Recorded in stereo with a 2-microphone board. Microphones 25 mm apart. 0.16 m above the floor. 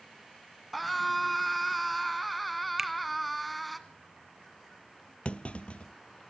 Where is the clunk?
60° left (ahead or behind), 0.7 m.